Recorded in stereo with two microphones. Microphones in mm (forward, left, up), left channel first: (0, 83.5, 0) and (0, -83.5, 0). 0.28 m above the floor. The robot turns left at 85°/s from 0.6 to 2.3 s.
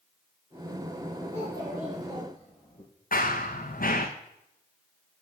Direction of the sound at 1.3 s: 130° right.